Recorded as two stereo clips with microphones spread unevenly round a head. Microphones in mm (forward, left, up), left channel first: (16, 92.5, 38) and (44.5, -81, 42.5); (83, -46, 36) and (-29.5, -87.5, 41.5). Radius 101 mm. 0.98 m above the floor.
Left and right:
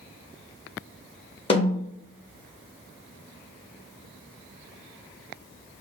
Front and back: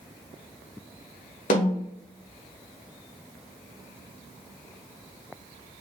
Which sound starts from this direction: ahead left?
A snare drum, at 1.5 s.